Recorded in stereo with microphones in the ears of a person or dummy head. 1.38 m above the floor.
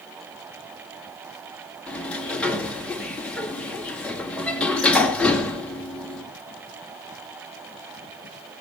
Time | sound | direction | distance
1.9 | a sliding door | 5° left (ahead or behind) | 2.5 m